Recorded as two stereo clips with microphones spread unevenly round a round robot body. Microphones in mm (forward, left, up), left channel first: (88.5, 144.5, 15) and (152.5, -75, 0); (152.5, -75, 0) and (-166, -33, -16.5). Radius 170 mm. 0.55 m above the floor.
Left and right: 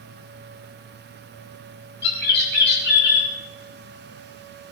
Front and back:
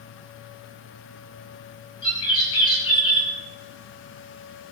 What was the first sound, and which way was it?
A bird, 70° left.